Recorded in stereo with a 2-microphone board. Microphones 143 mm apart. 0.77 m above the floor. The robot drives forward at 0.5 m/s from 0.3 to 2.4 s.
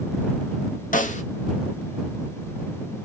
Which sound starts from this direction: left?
A snare drum, at 0.9 s.